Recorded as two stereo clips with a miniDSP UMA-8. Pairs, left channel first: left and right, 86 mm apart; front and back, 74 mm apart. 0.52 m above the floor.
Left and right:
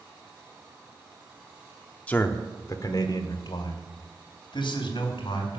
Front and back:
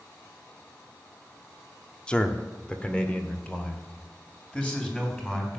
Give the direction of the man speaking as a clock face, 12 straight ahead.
10 o'clock.